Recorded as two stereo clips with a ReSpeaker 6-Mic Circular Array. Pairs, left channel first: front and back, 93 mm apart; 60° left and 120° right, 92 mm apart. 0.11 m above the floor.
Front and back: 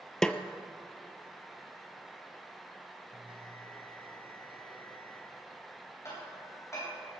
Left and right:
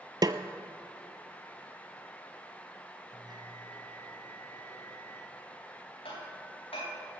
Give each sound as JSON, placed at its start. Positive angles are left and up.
{"t": 0.2, "sound": "a snare drum", "azimuth_deg": -85, "distance_m": 0.6}
{"t": 3.1, "sound": "a bell", "azimuth_deg": -160, "distance_m": 2.5}
{"t": 6.0, "sound": "hammering", "azimuth_deg": 55, "distance_m": 7.0}